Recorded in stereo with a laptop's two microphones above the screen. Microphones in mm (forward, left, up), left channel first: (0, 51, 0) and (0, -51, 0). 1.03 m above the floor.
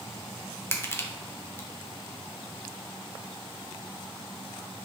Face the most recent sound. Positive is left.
turn(degrees=25)  # may be behind; listen again after turning